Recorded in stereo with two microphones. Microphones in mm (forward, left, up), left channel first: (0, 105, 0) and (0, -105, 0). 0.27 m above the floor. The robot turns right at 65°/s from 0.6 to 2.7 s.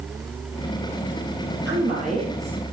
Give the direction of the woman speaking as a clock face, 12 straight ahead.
2 o'clock.